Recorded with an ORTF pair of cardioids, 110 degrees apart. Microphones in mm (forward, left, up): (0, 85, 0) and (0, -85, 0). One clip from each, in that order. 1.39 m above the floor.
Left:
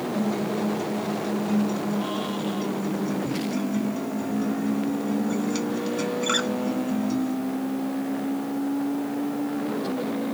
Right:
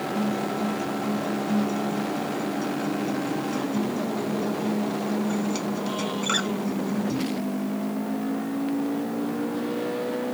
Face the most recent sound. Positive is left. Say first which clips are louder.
# left 1 dB
turn(degrees=0)